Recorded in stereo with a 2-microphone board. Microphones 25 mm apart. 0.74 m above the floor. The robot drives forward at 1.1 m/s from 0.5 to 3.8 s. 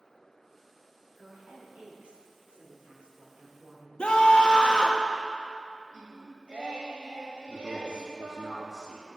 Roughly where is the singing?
Right.